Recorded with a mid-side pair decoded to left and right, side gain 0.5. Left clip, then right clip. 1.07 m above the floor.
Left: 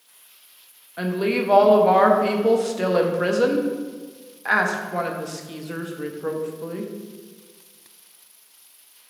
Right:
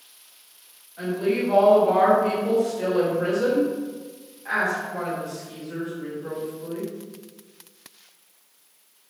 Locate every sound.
1.0 s a woman speaking: 65° left, 0.7 m